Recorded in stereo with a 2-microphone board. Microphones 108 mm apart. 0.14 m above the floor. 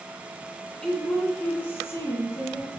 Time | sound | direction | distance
0.8 | a woman speaking | 5° left (ahead or behind) | 1.7 m